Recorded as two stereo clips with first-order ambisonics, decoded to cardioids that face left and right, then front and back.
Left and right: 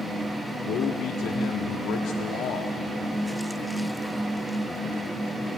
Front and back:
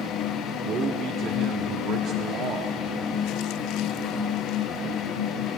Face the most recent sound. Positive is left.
turn(degrees=130)